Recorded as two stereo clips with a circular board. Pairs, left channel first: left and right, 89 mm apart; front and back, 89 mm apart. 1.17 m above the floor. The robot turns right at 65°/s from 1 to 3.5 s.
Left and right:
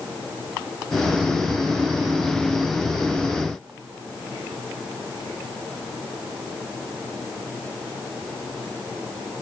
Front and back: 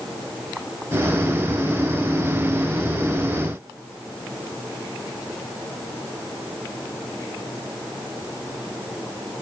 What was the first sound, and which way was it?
Only background noise.